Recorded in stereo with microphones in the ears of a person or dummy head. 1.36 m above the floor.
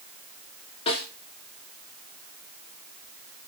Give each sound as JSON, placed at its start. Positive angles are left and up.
{"t": 0.9, "sound": "a snare drum", "side_deg": 30, "distance_m": 3.0}